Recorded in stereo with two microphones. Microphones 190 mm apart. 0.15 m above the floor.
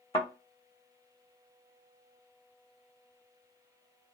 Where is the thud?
35° left (ahead or behind), 1.0 m.